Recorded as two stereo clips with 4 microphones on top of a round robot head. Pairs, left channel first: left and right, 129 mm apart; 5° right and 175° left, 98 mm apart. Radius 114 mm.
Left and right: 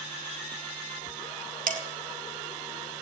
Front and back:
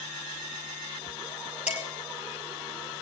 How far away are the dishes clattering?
About 2 m.